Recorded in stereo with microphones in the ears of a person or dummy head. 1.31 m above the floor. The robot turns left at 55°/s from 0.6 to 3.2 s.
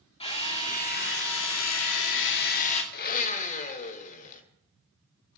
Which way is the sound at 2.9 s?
50° left (ahead or behind).